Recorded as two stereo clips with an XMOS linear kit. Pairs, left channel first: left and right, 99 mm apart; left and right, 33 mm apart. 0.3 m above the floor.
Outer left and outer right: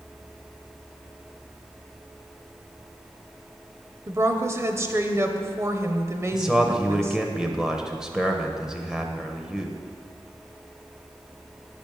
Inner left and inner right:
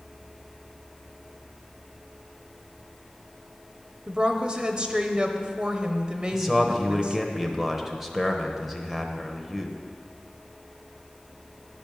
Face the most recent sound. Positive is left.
turn(degrees=-5)  # may be behind; listen again after turning